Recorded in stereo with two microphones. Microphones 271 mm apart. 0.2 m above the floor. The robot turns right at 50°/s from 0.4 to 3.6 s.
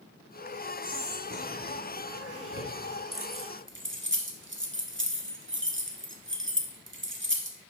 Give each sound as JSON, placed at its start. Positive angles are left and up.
{"t": 0.8, "sound": "whispering", "side_deg": -15, "distance_m": 2.0}
{"t": 3.1, "sound": "keys jangling", "side_deg": -50, "distance_m": 1.0}